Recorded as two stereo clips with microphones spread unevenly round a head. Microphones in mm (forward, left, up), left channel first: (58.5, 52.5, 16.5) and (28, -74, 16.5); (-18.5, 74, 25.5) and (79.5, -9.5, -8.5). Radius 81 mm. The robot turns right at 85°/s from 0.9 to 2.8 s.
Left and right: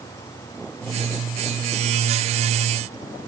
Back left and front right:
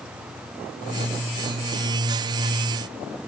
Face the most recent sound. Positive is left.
No sound to turn to.